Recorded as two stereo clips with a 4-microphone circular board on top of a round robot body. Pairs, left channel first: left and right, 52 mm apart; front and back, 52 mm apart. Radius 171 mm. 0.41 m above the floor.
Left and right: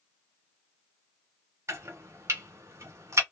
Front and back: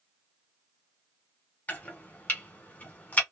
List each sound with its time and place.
1.7 s chopping: 60° right, 1.6 m